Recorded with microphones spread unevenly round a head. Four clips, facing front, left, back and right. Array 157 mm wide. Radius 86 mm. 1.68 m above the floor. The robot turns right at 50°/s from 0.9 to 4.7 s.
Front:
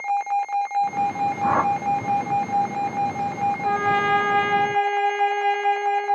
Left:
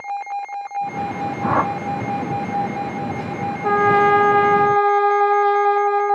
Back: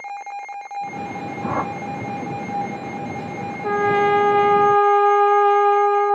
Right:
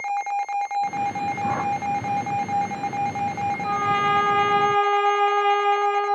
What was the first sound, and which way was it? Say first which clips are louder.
A whoosh: left 7 dB, front 4 dB; 40° left.